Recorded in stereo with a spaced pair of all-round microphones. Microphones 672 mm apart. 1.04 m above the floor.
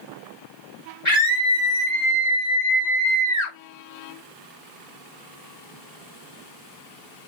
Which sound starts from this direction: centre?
A scream, at 1.1 s.